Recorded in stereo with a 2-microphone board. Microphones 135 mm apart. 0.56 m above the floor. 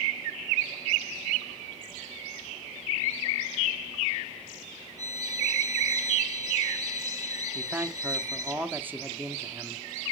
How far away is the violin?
About 0.6 m.